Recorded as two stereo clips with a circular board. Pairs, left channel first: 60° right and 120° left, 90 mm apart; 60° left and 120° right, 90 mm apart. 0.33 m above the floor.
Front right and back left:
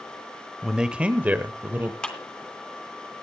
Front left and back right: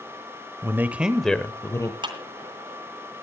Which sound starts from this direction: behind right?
A clap, at 2.0 s.